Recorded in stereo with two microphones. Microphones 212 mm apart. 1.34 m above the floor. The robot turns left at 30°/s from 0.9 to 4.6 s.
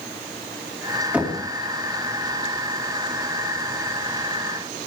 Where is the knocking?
5° right (ahead or behind), 2 m; by 1.4 s 15° right (ahead or behind), 2 m.